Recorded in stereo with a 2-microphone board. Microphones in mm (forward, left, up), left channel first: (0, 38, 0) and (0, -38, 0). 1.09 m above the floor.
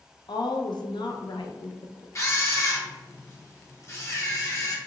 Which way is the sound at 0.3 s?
70° left (ahead or behind).